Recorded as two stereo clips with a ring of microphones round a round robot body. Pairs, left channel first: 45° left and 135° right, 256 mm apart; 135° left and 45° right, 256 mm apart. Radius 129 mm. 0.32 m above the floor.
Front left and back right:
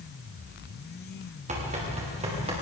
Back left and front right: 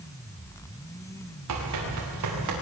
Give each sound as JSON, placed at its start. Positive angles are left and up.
{"t": 1.5, "sound": "running footsteps", "azimuth_deg": -70, "distance_m": 7.0}